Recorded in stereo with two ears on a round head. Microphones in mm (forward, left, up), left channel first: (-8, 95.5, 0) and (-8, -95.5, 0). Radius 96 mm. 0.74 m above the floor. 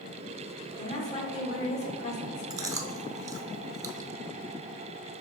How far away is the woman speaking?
About 2.0 m.